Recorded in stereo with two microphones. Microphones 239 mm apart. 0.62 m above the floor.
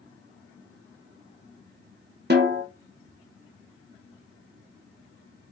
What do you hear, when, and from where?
2.3 s a snare drum: 45° right (ahead or behind), 0.5 m